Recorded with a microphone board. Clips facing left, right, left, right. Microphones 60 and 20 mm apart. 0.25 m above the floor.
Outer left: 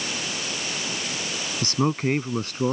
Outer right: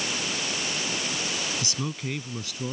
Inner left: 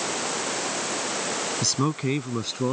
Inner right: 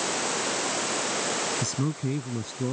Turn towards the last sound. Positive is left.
turn(degrees=45)  # may be behind; listen again after turning